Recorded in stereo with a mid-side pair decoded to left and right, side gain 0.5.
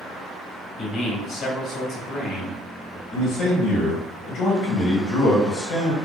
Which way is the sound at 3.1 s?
65° left.